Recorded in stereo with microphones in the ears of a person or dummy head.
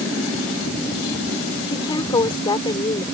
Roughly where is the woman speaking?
Left.